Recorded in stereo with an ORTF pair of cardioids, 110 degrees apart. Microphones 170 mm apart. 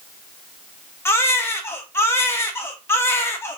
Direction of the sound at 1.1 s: 15° left.